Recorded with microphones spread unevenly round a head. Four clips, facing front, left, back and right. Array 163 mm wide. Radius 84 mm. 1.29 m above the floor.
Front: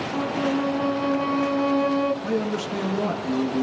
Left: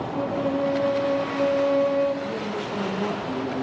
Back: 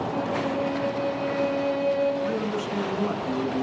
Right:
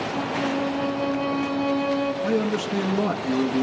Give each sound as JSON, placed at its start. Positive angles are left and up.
{"t": 0.1, "sound": "a violin", "azimuth_deg": -5, "distance_m": 2.0}
{"t": 2.2, "sound": "a man speaking", "azimuth_deg": -65, "distance_m": 1.4}